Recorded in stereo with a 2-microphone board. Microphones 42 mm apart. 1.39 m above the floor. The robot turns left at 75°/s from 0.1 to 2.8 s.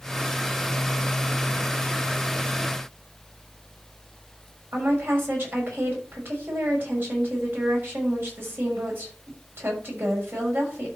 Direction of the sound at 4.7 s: 55° right (ahead or behind).